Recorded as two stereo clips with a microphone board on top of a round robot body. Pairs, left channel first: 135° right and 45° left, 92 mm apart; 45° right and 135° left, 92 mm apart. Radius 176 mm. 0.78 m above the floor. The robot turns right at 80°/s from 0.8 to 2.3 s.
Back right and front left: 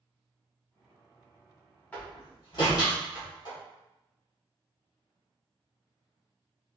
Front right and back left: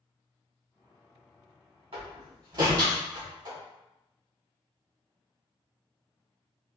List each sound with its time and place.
1.9 s a door slam: 150° left, 2 m; by 3.6 s straight behind, 2 m